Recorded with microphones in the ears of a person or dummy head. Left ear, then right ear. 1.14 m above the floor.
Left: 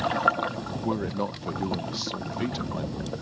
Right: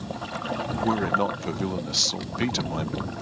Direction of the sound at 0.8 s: 40° right (ahead or behind).